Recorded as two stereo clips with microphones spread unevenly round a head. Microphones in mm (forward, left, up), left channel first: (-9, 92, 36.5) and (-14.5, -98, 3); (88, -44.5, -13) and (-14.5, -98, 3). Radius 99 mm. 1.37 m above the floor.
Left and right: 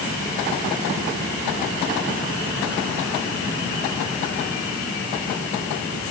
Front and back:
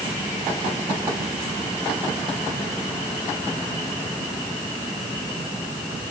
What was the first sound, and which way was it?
Only background noise.